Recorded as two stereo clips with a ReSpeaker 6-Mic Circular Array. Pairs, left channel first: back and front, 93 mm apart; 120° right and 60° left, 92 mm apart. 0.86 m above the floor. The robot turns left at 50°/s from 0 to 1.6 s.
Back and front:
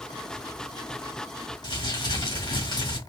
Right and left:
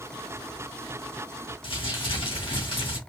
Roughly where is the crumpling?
Behind right.